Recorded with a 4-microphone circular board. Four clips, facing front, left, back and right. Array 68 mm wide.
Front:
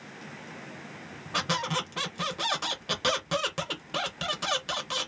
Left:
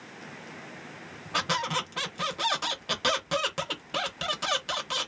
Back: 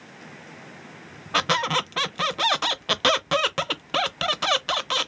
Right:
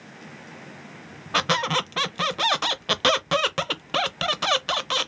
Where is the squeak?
140° right, 0.5 m.